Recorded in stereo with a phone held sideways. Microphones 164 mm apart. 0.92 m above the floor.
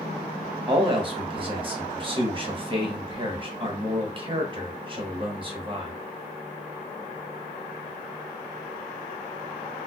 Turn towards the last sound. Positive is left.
turn(degrees=-30)  # may be behind; listen again after turning